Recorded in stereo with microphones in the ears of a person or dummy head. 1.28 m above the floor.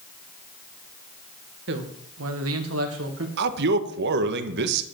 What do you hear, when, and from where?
1.7 s a man speaking: 65° right (ahead or behind), 1.6 m; by 3.3 s 60° right (ahead or behind), 1.7 m
3.4 s a man speaking: 60° right (ahead or behind), 1.4 m